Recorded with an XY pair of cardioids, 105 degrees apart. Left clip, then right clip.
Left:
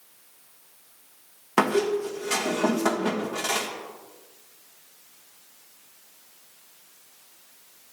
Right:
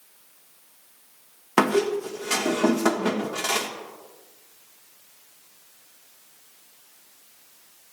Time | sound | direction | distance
1.6 | a squeak | 25° right | 1.3 m